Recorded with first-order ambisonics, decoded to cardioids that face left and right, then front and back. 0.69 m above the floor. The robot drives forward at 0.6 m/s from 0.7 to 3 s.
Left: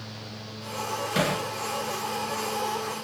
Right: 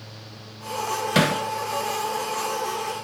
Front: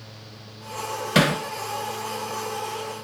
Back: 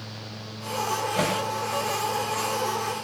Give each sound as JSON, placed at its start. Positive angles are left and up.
{"t": 1.1, "sound": "hammering", "azimuth_deg": -25, "distance_m": 2.5}